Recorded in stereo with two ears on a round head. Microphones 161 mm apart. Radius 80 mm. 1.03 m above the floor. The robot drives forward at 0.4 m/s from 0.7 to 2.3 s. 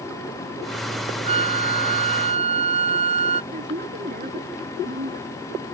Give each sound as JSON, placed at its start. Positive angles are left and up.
{"t": 1.2, "sound": "a flute", "side_deg": -35}
{"t": 3.5, "sound": "a woman speaking", "side_deg": -45}